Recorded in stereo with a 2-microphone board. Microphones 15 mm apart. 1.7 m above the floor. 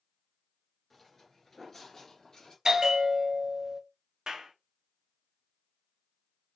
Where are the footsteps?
15° left (ahead or behind), 1.7 m; by 2.5 s 40° left (ahead or behind), 2 m.